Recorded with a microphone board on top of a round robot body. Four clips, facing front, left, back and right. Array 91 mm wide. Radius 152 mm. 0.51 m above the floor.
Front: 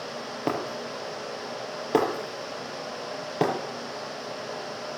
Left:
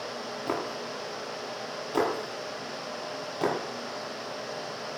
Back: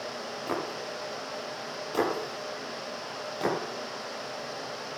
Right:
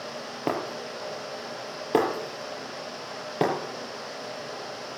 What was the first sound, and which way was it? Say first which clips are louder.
Breaking glass: right 3 dB, front 4 dB; 50° right.